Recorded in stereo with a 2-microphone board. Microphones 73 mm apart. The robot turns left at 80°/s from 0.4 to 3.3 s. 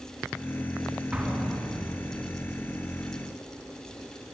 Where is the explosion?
25° right (ahead or behind), 3.5 m; by 2.2 s 60° left (ahead or behind), 3.5 m.